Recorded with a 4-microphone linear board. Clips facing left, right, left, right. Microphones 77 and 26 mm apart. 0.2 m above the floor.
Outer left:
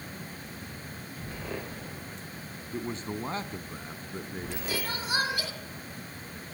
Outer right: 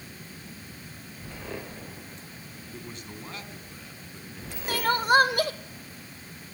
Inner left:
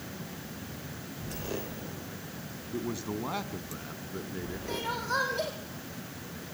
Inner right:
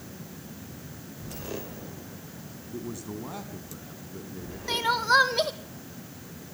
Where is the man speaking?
30° left (ahead or behind), 1.4 m; by 4.6 s 45° left (ahead or behind), 2.5 m.